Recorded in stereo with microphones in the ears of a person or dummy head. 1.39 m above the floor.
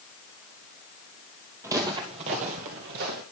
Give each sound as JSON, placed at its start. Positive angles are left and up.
{"t": 1.6, "sound": "footsteps", "side_deg": -10, "distance_m": 1.6}